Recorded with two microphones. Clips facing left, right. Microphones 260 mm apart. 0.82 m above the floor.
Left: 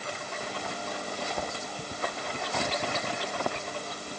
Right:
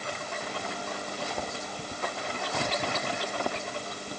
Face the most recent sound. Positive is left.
No sound to turn to.